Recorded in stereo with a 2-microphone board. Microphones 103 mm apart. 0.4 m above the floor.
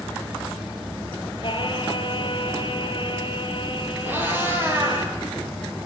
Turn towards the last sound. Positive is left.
turn(degrees=-15)  # may be behind; listen again after turning